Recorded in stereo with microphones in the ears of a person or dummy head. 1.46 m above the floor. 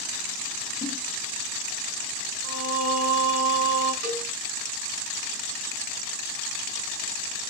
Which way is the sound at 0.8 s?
15° left (ahead or behind).